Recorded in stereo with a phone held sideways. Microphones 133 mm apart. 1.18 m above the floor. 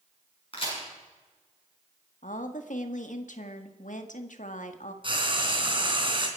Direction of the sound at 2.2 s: 70° left (ahead or behind).